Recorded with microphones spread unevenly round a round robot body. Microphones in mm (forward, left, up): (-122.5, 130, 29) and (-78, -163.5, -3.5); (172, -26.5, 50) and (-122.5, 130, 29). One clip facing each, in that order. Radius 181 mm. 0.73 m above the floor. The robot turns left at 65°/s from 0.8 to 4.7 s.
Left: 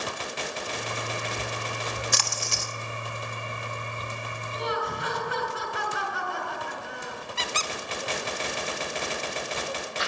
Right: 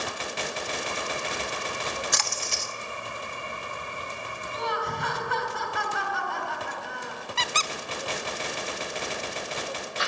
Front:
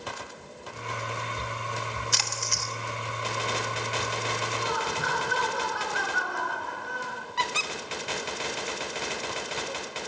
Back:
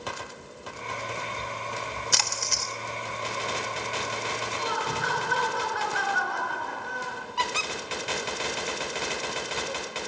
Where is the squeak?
95° right, 0.6 m.